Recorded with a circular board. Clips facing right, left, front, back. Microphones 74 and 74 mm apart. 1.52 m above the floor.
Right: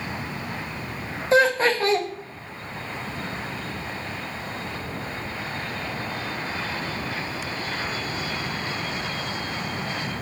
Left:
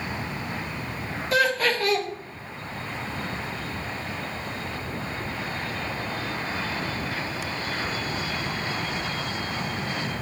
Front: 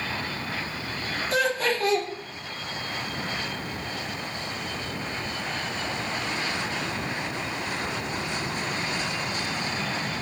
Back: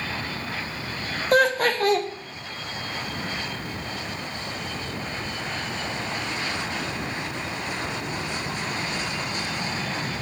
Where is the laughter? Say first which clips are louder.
Right 4 dB, back 6 dB; 150° right, 0.8 m.